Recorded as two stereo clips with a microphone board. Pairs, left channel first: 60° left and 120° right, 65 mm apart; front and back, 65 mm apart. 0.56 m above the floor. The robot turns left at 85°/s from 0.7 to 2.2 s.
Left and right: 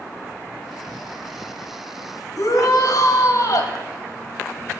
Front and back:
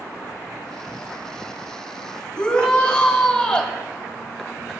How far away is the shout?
About 2.0 m.